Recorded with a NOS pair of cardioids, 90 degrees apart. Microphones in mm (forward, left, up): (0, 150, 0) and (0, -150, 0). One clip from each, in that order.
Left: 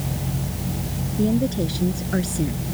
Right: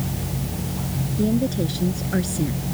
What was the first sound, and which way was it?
A woman speaking, 5° left.